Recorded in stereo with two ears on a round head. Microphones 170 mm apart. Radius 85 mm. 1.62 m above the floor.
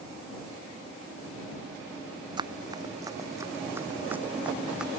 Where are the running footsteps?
25° right (ahead or behind); by 4.9 s 5° right (ahead or behind).